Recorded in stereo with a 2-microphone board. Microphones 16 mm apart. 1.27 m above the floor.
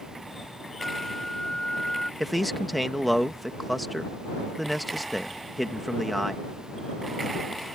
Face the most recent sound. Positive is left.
turn(degrees=5)  # may be behind; listen again after turning